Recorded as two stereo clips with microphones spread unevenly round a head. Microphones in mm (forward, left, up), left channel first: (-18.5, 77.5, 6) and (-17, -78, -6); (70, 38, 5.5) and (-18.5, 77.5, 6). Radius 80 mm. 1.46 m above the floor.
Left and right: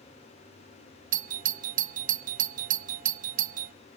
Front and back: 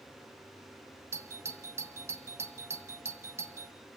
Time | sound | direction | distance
1.1 | a doorbell | 130° right | 0.5 m